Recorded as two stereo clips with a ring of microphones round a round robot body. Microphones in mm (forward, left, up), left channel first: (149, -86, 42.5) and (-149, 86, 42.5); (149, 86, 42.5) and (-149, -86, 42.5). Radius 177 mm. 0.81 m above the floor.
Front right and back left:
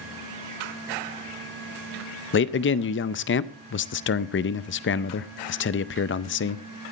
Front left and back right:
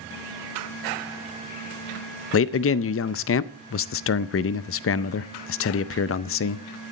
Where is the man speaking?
5° left, 0.6 m.